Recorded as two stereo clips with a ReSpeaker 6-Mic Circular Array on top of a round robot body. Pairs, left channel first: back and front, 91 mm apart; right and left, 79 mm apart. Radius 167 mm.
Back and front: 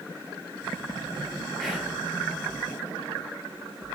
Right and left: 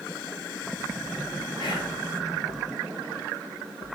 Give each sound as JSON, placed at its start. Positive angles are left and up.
{"t": 1.6, "sound": "whispering", "azimuth_deg": -90, "distance_m": 1.3}